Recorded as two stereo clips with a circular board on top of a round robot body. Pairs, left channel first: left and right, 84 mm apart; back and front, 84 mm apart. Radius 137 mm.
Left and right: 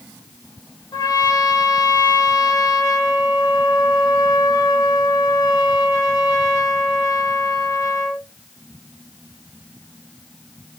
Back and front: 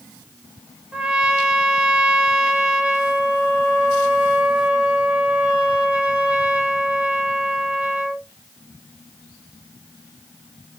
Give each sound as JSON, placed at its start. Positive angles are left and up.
{"t": 0.9, "sound": "a trumpet", "azimuth_deg": 75, "distance_m": 0.9}